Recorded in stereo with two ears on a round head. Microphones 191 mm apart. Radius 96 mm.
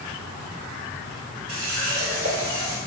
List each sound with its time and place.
1.5 s a running tap: 80° right, 1.3 m